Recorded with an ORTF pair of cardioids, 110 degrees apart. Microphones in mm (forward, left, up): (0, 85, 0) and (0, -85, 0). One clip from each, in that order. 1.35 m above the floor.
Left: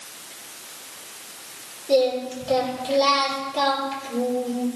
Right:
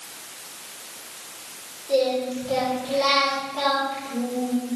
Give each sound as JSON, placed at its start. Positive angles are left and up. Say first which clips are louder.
{"t": 1.9, "sound": "singing", "louder": "left 2 dB", "azimuth_deg": 55, "distance_m": 4.5}